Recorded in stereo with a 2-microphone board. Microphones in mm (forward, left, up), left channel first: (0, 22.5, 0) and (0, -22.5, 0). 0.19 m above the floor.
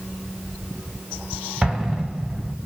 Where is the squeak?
No squeak in this recording.